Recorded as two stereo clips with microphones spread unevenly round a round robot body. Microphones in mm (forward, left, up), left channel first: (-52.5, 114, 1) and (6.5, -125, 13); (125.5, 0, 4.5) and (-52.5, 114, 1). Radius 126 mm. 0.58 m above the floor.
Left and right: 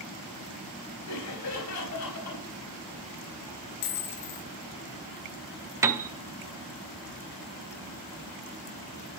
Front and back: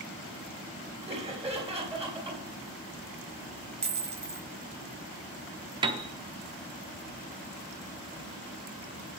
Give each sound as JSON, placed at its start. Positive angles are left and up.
{"t": 1.1, "sound": "laughter", "azimuth_deg": 75, "distance_m": 3.0}
{"t": 3.8, "sound": "a dropped coin", "azimuth_deg": 90, "distance_m": 1.8}
{"t": 5.8, "sound": "a piano", "azimuth_deg": -155, "distance_m": 0.6}